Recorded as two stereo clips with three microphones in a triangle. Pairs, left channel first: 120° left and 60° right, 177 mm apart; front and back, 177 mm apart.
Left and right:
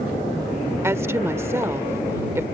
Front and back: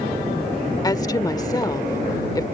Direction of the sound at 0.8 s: 15° right.